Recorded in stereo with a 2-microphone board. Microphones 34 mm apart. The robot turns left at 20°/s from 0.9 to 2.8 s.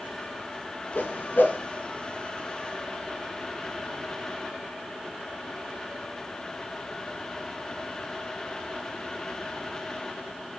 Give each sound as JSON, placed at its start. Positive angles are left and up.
{"t": 0.9, "sound": "a whoosh", "side_deg": 75, "distance_m": 1.7}